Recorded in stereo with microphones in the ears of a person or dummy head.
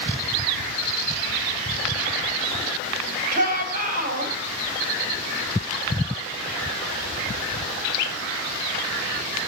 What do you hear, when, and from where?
3.3 s a shout: 50° right (ahead or behind), 7.5 m